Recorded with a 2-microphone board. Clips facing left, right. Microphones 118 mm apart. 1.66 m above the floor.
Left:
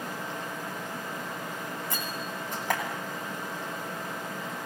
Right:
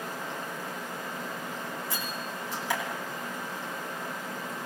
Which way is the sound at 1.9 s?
50° left (ahead or behind).